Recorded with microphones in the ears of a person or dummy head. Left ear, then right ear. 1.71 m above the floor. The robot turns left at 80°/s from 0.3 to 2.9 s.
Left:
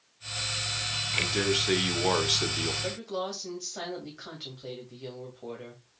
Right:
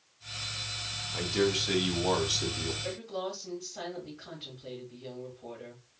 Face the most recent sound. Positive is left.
turn(degrees=70)  # may be behind; listen again after turning